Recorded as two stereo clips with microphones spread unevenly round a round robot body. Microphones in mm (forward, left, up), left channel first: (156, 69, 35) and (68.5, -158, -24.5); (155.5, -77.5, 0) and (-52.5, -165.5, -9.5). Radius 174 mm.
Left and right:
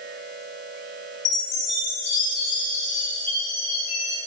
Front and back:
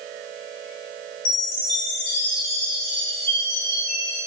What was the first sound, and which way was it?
A chime, 60° left.